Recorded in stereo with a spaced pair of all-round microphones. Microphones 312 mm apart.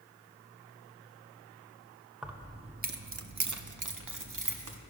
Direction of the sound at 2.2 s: Centre (ahead or behind).